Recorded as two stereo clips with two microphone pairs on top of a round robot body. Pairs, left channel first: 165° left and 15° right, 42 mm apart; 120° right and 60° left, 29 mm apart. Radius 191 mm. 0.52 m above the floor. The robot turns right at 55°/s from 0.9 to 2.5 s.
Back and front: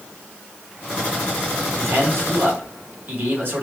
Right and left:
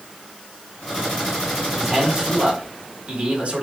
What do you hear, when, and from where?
1.8 s a man speaking: 20° right, 4 m; by 3.6 s 20° left, 4 m